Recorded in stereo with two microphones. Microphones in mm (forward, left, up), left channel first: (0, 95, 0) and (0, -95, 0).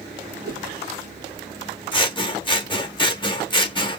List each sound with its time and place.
0.5 s a whoosh: 55° right (ahead or behind), 1.1 m
1.9 s scissors: 25° left (ahead or behind), 0.6 m